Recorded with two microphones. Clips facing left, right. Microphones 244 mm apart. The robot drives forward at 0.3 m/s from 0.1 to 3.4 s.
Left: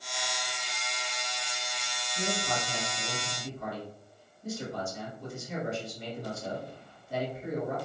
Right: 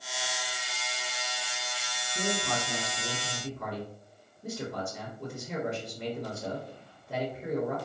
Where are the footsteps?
I don't hear footsteps.